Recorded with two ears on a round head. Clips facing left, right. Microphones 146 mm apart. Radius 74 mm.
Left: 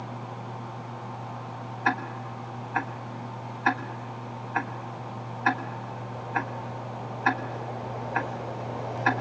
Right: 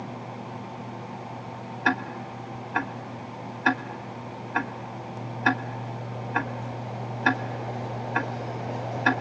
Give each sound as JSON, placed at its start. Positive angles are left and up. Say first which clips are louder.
{"t": 1.9, "sound": "ticking", "louder": "right 1 dB", "side_deg": -35, "distance_m": 1.3}